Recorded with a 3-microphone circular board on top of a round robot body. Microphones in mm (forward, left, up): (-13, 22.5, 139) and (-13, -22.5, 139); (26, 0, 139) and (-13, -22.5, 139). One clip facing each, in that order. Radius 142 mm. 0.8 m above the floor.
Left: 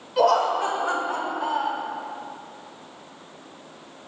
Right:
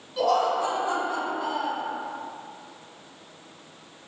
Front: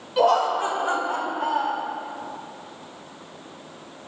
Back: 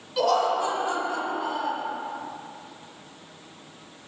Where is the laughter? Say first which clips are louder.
Left 3 dB, front 3 dB; 90° left, 2.5 m; by 1.8 s 35° left, 2 m.